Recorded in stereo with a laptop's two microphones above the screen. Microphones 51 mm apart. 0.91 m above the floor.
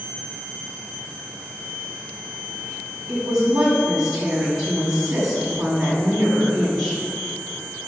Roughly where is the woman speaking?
Centre.